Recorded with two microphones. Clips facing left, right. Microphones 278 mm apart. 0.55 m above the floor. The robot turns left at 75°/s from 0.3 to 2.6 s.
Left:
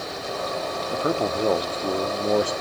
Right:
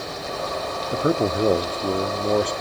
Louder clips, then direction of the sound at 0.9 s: Right 4 dB; 20° right (ahead or behind).